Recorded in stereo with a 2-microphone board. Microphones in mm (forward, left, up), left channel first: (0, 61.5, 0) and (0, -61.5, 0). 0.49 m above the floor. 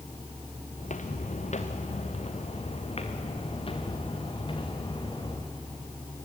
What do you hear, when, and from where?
0.8 s footsteps: 75° left (ahead or behind), 2 m; by 5.5 s 40° left (ahead or behind), 4 m